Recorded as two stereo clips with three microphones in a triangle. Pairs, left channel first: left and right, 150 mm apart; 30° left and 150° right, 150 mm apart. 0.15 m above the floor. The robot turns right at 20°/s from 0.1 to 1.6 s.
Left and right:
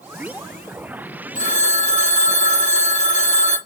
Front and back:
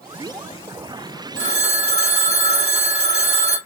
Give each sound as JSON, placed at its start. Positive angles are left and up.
{"t": 1.4, "sound": "a phone ringing", "azimuth_deg": 125, "distance_m": 2.5}